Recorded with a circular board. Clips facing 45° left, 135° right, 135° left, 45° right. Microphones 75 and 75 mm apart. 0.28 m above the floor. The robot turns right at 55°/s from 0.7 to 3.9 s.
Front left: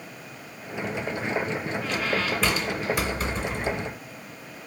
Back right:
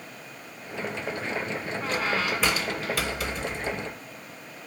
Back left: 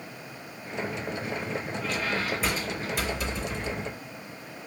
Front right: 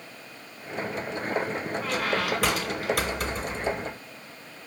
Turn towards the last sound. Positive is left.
turn(degrees=25)